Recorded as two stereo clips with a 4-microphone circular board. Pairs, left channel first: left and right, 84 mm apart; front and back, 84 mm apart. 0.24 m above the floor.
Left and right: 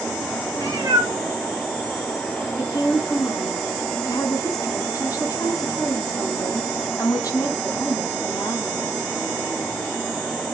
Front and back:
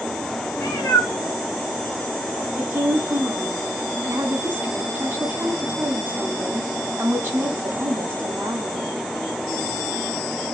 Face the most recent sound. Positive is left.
turn(degrees=120)